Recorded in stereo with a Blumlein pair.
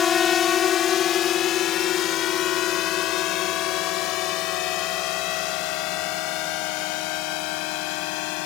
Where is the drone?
25° left; by 8.5 s 45° left.